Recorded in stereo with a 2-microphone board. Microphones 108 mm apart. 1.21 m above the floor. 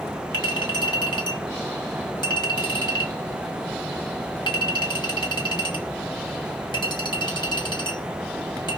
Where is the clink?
40° left (ahead or behind), 1.4 m.